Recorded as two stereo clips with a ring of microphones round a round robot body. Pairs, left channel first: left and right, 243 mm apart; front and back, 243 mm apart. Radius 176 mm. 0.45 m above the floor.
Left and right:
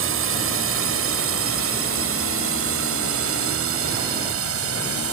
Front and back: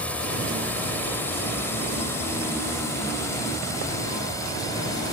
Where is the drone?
85° right; by 5.1 s 80° right.